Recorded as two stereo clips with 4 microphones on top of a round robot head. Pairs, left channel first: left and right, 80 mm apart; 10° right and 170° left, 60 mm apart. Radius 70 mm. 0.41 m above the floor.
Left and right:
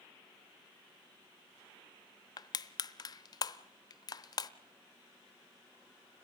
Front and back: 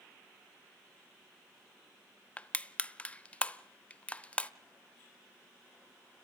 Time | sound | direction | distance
2.4 | crushing | 55° left | 0.9 m